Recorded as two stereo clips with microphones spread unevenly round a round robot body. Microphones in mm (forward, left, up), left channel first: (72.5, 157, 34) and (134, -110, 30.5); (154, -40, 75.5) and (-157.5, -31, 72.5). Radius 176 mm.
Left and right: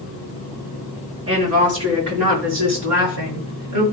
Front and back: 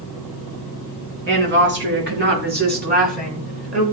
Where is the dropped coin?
No dropped coin in this recording.